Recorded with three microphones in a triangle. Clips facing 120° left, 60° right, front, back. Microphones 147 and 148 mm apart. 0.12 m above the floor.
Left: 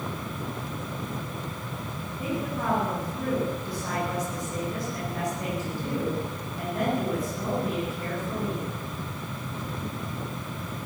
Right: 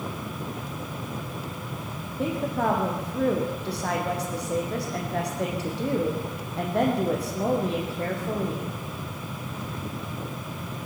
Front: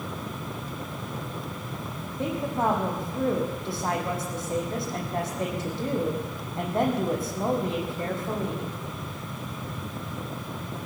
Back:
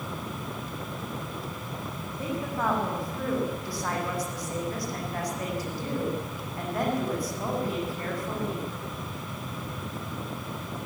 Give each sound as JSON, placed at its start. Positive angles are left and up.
{"t": 2.2, "sound": "a woman speaking", "azimuth_deg": -65, "distance_m": 5.5}